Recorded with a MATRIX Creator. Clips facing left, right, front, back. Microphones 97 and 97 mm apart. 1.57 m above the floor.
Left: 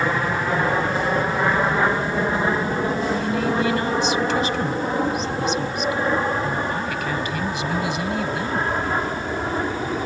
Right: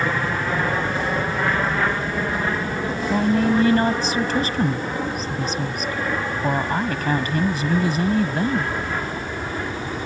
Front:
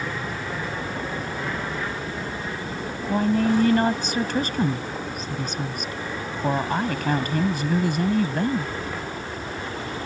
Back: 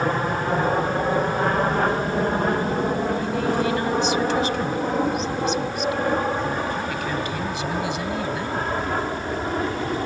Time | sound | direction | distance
0.0 | an aircraft | 165° left | ?
3.1 | a woman speaking | 40° right | ?